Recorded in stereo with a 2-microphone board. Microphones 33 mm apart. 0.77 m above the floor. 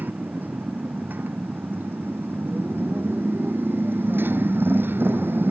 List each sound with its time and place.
0.0 s a motorcycle: 60° right (ahead or behind); by 5.5 s 85° right